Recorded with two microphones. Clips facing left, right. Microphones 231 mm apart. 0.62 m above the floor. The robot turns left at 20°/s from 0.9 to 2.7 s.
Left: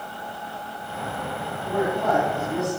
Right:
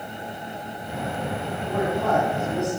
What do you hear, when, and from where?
1.6 s a man speaking: centre (ahead or behind), 4 m; by 2.7 s 20° left (ahead or behind), 4 m